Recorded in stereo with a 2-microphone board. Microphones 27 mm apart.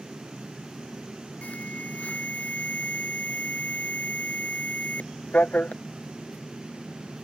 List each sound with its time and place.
1.4 s an alarm: 70° left (ahead or behind)